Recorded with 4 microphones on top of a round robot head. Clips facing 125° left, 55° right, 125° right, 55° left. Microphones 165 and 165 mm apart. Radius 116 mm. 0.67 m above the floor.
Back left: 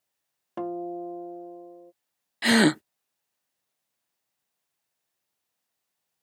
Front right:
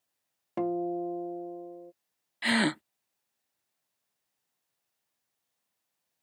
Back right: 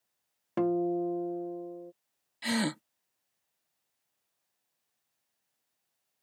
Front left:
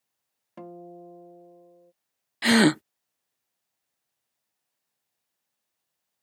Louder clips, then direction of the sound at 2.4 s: Back left 8 dB, front left 12 dB; 80° left.